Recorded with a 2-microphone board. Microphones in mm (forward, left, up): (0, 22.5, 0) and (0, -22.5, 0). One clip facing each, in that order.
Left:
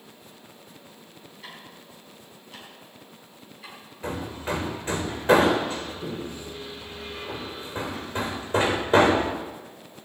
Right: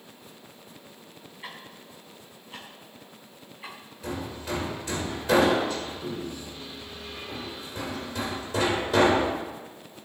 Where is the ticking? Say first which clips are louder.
Right 2 dB; 25° right (ahead or behind), 4.5 m.